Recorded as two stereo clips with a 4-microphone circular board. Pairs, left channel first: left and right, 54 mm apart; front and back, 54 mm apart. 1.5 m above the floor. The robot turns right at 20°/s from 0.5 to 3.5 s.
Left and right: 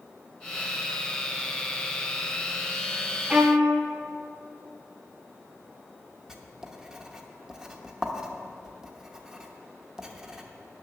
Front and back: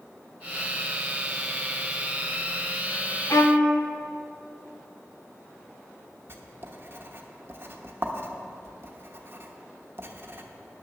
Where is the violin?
15° right, 1.1 m; by 3.7 s 10° right, 1.1 m.